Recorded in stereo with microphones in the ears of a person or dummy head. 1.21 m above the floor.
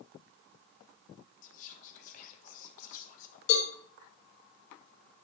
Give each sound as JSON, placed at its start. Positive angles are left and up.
{"t": 1.4, "sound": "whispering", "side_deg": 50, "distance_m": 0.8}
{"t": 3.5, "sound": "a cowbell", "side_deg": 75, "distance_m": 3.0}